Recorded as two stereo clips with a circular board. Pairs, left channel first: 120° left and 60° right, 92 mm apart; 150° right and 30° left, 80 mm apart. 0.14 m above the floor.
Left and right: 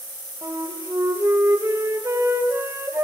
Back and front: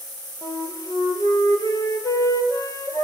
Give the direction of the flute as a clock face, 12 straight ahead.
4 o'clock.